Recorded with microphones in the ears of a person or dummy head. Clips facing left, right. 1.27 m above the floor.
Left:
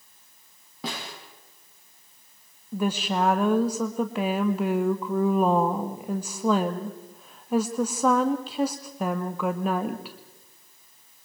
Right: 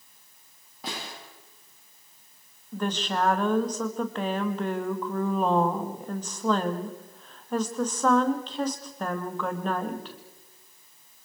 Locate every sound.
0.8 s a snare drum: 60° left (ahead or behind), 8 m
2.7 s a woman speaking: 5° left (ahead or behind), 2 m